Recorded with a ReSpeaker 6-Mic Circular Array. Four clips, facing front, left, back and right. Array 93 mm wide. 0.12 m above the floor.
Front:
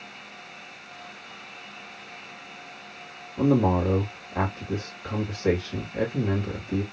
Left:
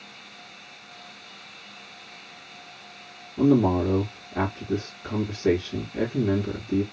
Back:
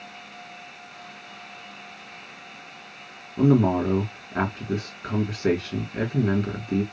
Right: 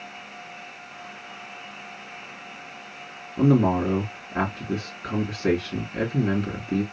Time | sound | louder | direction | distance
3.4 | a man speaking | even, back 2 dB | 125° right | 2.5 m